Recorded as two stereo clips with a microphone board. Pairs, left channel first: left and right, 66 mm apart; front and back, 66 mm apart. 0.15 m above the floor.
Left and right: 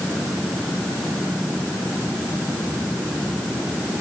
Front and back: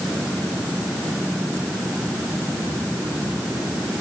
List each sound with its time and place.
Only background noise.